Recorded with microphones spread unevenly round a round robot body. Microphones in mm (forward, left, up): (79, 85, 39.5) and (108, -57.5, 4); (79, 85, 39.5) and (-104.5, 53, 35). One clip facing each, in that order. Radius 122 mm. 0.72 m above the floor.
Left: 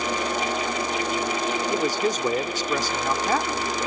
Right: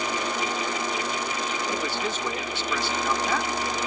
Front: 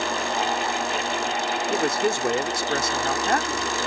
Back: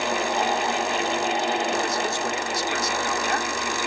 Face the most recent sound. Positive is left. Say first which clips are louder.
# left 6 dB, front 3 dB
turn(degrees=50)